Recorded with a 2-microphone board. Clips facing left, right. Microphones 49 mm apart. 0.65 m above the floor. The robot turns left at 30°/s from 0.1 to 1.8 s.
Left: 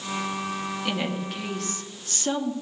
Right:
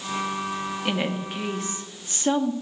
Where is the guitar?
No guitar in this recording.